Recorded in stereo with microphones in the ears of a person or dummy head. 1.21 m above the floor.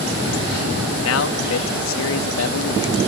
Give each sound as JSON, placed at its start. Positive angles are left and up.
{"t": 1.0, "sound": "a man speaking", "side_deg": 70}